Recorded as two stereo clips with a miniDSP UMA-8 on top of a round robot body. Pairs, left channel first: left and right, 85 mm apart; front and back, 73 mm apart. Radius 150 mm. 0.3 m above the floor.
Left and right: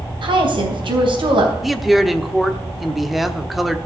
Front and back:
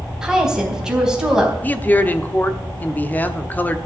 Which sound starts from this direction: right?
A woman speaking, at 0.2 s.